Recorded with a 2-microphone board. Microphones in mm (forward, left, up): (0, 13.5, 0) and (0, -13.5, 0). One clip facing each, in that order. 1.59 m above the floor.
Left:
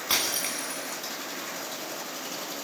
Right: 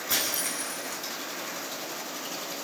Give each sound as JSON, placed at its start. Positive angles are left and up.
{"t": 0.1, "sound": "breaking glass", "side_deg": 50, "distance_m": 9.0}